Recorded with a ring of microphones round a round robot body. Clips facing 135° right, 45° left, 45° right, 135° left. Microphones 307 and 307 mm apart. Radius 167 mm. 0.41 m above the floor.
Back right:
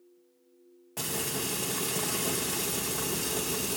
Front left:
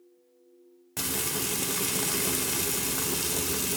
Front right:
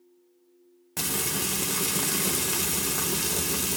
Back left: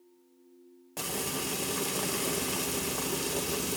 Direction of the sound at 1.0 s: Straight ahead.